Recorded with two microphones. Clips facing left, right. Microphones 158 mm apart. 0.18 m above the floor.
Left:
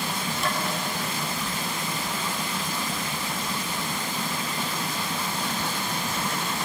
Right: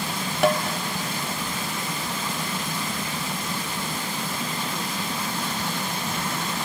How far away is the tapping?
About 2 m.